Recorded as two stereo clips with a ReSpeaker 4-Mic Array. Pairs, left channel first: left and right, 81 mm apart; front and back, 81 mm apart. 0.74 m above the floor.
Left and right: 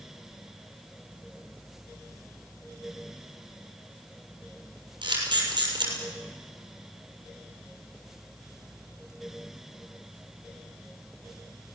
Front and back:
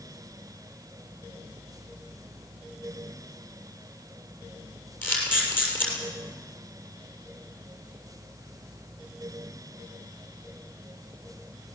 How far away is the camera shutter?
About 6.5 m.